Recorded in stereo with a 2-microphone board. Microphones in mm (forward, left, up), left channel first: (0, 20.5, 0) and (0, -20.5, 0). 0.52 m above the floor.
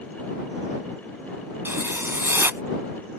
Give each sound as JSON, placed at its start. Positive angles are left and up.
{"t": 1.6, "sound": "writing", "side_deg": -70}